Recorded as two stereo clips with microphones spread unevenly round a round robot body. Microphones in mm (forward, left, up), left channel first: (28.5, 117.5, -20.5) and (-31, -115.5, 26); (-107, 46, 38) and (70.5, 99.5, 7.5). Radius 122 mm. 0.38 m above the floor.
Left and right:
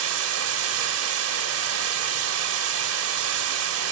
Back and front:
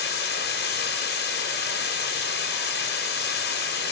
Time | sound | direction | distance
0.0 | running water | 130° right | 1.7 m